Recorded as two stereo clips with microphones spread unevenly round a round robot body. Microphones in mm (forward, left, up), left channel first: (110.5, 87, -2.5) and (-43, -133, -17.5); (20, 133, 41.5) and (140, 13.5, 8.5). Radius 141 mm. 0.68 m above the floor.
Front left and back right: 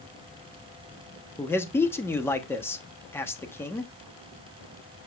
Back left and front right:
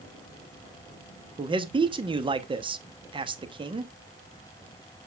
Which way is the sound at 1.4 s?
25° right.